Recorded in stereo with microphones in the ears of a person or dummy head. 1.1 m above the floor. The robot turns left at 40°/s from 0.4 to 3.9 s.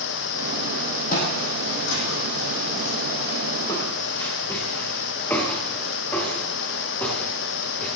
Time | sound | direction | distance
1.1 | footsteps | 45° left (ahead or behind) | 2.5 m